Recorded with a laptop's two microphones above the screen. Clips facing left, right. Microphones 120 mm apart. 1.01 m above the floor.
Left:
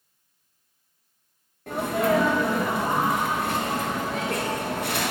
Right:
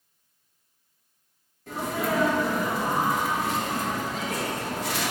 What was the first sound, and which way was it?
A sneeze, 65° left (ahead or behind).